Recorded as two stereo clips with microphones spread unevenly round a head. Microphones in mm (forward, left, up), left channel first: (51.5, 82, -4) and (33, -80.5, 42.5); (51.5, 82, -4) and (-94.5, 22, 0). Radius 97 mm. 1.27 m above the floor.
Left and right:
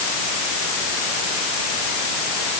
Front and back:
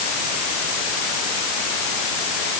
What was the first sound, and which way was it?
Only background noise.